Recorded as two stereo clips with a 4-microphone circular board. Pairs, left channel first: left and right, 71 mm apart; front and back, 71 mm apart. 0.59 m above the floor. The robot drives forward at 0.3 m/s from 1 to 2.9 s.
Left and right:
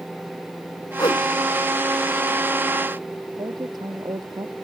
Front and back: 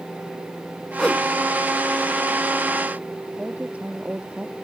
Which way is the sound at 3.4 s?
105° right.